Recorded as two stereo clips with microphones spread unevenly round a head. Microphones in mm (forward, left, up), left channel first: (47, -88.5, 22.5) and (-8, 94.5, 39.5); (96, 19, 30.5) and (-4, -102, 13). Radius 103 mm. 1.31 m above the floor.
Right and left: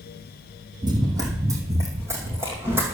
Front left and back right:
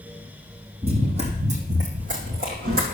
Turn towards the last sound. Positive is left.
turn(degrees=-175)